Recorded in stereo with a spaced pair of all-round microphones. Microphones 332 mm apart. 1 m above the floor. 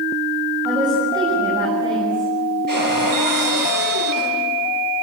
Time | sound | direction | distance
0.7 | a woman speaking | 10° right (ahead or behind) | 7 m
2.7 | a cupboard door | 75° right (ahead or behind) | 8 m